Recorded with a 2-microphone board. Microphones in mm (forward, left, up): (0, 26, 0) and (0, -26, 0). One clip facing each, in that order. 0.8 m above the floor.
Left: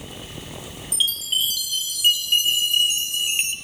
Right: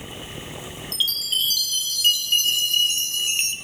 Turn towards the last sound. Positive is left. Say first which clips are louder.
# left 1 dB
turn(degrees=15)  # may be behind; listen again after turning